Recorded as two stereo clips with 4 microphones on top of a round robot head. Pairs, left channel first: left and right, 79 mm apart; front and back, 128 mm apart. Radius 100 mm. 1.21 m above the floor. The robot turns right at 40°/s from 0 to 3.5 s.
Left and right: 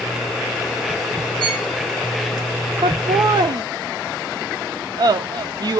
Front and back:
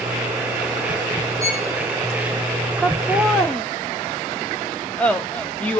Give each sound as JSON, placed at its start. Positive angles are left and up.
{"t": 1.4, "sound": "a violin", "azimuth_deg": -110, "distance_m": 3.5}
{"t": 2.8, "sound": "laughter", "azimuth_deg": -105, "distance_m": 0.5}